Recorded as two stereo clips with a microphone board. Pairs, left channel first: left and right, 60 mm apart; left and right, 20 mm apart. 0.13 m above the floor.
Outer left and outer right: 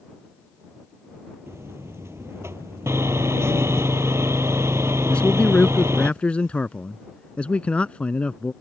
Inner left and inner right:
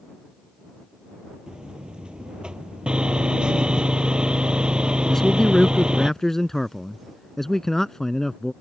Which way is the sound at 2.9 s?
55° right (ahead or behind).